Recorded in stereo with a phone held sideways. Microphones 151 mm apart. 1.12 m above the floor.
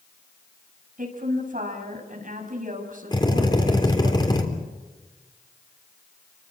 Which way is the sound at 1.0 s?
65° right (ahead or behind).